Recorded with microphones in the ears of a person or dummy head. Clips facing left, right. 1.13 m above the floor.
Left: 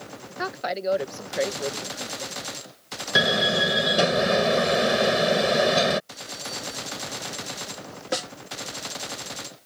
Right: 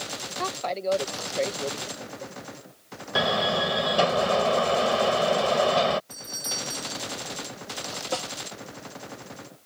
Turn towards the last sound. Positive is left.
turn(degrees=20)  # may be behind; listen again after turning